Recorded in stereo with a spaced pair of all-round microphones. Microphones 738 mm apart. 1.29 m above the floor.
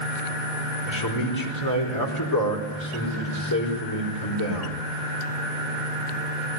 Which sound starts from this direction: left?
A man speaking, at 0.9 s.